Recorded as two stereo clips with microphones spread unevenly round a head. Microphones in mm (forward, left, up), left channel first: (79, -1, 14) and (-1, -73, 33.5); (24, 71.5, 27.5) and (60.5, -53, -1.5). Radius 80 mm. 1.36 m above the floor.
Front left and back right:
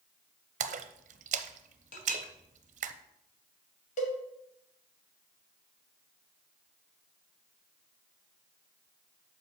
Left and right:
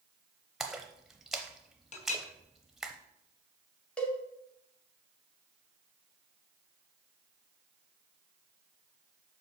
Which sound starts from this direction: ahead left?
A cowbell, at 4.0 s.